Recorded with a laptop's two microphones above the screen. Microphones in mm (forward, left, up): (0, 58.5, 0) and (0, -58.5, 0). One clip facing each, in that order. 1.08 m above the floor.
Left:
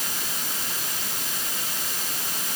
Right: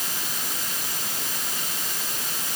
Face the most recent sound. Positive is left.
No sound to turn to.